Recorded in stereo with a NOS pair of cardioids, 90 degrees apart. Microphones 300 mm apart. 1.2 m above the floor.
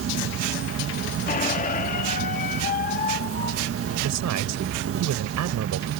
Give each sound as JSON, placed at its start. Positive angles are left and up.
{"t": 0.0, "sound": "an insect", "azimuth_deg": -50}
{"t": 1.3, "sound": "a squeak", "azimuth_deg": 30}
{"t": 4.0, "sound": "a man speaking", "azimuth_deg": -70}